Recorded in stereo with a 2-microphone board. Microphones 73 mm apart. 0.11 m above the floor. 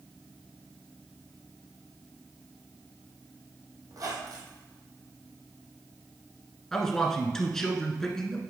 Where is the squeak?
55° right (ahead or behind), 2.5 m.